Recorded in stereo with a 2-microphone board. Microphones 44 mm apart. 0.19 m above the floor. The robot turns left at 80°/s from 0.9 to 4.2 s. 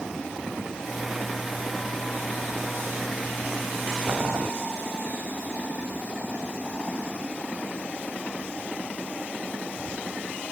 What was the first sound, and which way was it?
Boiling, 60° right (ahead or behind).